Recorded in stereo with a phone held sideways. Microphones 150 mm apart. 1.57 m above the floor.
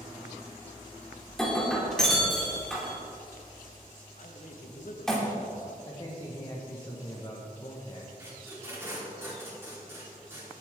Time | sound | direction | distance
1.3 | breaking glass | 5° left (ahead or behind) | 3 m
4.2 | a man speaking | 65° left (ahead or behind) | 1.6 m
5.9 | a man speaking | 30° left (ahead or behind) | 1.6 m
8.2 | tape being pulled | 15° right (ahead or behind) | 4.5 m